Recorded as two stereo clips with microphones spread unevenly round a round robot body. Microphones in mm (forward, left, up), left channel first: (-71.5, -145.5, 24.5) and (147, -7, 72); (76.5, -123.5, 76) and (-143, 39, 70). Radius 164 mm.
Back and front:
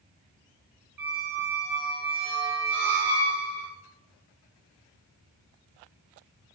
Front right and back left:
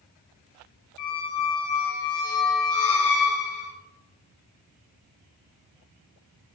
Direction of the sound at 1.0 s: 50° right.